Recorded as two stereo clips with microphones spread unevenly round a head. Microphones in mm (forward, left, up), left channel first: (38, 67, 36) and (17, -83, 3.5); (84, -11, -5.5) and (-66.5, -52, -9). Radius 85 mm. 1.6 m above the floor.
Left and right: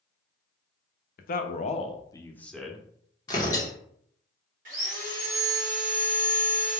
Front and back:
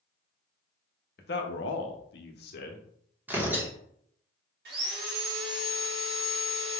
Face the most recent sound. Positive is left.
turn(degrees=-150)